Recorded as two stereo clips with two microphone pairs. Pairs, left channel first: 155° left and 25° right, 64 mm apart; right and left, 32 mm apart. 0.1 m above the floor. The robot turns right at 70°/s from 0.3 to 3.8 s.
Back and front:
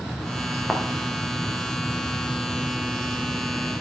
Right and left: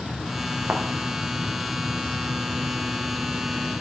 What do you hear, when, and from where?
0.7 s a thud: 65° left, 3 m; by 0.8 s 75° left, 3 m